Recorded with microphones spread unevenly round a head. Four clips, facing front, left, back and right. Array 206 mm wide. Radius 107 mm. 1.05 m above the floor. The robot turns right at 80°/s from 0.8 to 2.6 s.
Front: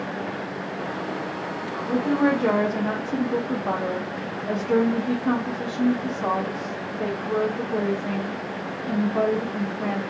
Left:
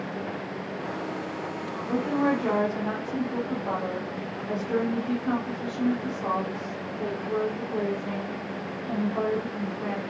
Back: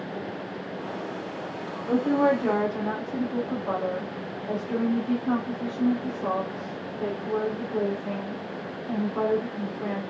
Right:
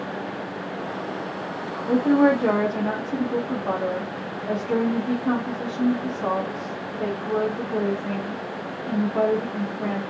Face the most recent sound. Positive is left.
turn(degrees=-40)